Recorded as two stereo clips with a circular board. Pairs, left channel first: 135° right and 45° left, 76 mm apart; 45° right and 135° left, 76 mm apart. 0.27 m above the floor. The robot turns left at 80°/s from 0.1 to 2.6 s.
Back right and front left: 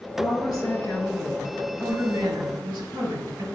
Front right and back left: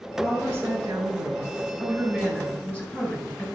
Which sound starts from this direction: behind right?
A woman speaking, at 0.2 s.